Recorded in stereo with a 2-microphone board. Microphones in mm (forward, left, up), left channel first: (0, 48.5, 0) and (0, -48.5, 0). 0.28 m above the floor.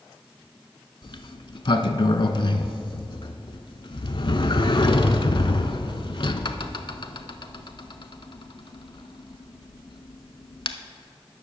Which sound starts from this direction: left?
A sliding door, at 1.0 s.